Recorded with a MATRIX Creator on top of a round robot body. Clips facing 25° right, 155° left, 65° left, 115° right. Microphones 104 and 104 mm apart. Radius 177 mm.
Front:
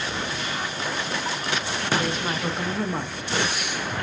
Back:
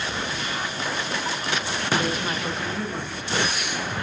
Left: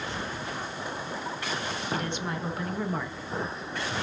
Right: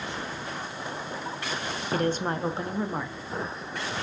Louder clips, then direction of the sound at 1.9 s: Even, right 8 dB; 130° right.